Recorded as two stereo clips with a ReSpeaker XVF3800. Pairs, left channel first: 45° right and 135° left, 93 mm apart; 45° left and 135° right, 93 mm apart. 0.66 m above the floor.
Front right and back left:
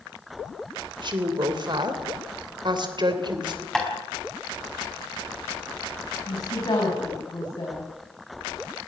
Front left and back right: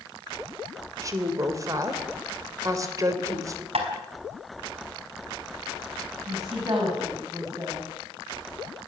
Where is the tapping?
130° right, 4.5 m.